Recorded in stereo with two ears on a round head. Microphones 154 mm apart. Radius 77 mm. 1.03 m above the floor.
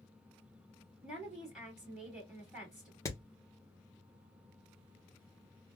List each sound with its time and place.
1.0 s a woman speaking: centre (ahead or behind), 2.0 m
3.0 s hammering: 20° left (ahead or behind), 0.8 m